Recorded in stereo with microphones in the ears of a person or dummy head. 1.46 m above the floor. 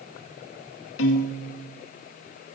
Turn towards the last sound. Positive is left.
turn(degrees=75)  # may be behind; listen again after turning